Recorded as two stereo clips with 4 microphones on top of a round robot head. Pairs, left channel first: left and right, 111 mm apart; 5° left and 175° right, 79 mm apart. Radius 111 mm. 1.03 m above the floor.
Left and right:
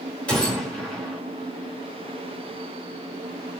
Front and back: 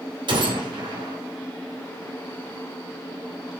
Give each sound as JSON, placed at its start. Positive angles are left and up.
{"t": 0.3, "sound": "a gunshot", "azimuth_deg": 170, "distance_m": 3.0}